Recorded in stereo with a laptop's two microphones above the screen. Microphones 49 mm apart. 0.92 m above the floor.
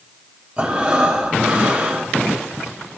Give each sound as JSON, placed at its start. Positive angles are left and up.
{"t": 0.6, "sound": "breathing", "side_deg": -20, "distance_m": 1.0}